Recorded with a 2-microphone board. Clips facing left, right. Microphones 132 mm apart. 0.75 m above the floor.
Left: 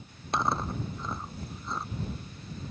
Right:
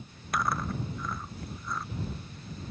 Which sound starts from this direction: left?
Chewing, at 0.3 s.